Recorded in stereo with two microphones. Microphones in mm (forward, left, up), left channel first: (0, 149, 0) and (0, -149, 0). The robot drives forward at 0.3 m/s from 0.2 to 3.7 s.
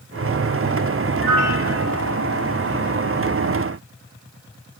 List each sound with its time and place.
1.2 s a piano: 5° left (ahead or behind), 3 m